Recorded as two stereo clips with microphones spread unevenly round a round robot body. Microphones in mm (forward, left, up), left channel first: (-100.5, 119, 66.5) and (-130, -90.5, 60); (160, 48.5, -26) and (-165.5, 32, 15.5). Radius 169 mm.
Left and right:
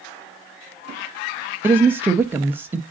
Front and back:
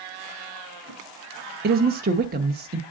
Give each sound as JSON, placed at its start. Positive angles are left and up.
{"t": 1.6, "sound": "a woman speaking", "azimuth_deg": -155, "distance_m": 0.8}